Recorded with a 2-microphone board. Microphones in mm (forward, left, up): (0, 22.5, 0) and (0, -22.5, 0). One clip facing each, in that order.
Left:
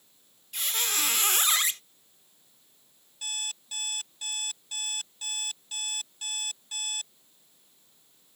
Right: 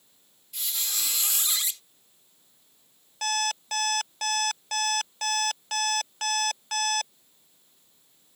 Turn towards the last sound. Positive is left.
turn(degrees=-85)